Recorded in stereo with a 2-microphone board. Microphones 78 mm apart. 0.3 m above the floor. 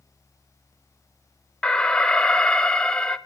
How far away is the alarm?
About 0.7 m.